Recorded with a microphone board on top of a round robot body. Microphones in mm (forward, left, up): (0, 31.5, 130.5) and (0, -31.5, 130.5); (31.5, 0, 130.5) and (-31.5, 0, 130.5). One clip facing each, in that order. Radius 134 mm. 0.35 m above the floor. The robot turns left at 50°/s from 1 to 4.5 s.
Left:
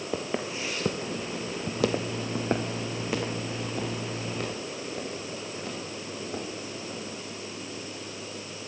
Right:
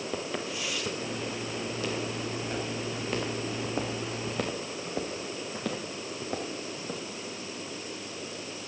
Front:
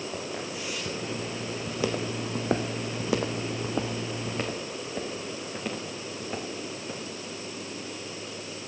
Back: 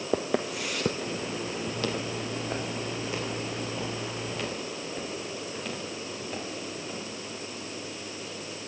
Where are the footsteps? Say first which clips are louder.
Left 5 dB, back 6 dB; 170° left, 0.6 m; by 7.0 s 75° right, 3.5 m.